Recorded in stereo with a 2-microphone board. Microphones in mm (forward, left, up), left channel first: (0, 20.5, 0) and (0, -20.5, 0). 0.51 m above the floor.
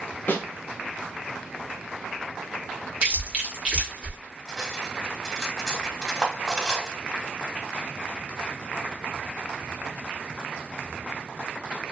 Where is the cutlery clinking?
10° right (ahead or behind), 1.1 m.